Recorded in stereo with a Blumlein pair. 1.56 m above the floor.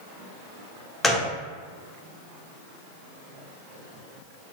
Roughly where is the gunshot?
Ahead.